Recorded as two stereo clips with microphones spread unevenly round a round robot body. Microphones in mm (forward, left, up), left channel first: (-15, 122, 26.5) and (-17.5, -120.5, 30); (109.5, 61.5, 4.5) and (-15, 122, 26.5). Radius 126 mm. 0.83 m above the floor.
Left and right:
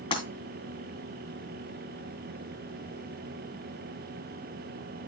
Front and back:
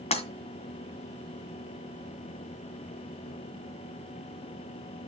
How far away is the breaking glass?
About 2.5 m.